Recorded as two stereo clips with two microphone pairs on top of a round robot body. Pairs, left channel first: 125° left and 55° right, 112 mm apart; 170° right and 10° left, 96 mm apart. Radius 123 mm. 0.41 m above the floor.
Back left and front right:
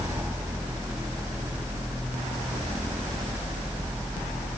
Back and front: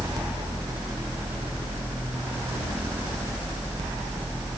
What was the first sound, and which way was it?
Only background noise.